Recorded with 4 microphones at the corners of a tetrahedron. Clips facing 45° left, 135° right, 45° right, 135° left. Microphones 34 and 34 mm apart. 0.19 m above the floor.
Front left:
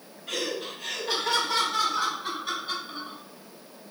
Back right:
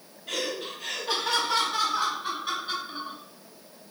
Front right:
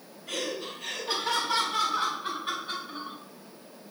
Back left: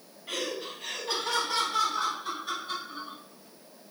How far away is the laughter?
About 1.1 m.